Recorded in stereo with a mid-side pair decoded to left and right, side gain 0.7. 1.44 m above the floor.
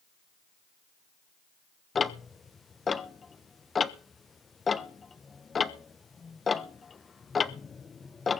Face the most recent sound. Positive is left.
turn(degrees=25)